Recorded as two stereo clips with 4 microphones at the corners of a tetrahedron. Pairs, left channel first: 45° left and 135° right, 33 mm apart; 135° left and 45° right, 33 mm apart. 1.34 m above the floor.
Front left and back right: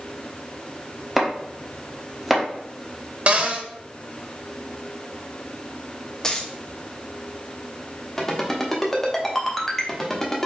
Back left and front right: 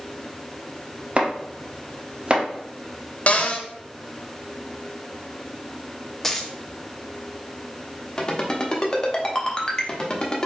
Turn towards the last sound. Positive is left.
turn(degrees=115)